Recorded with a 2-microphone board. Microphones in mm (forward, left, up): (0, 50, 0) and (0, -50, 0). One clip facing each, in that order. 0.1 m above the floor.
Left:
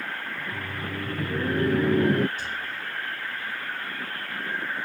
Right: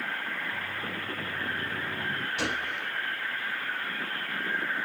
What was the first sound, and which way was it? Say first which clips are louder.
Laughter: left 2 dB; 60° left (ahead or behind).